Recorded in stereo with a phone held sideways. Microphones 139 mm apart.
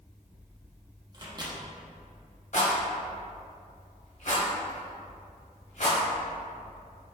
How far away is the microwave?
About 0.6 m.